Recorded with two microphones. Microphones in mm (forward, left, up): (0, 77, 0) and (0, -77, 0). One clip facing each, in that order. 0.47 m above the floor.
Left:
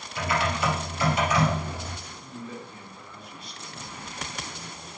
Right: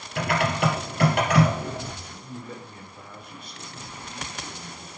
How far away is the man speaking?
About 3.5 m.